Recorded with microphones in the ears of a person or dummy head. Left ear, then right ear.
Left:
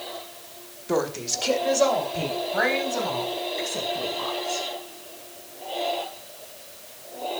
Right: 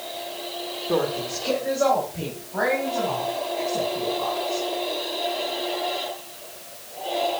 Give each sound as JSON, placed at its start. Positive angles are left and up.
{"t": 0.9, "sound": "a woman speaking", "side_deg": 80, "distance_m": 1.3}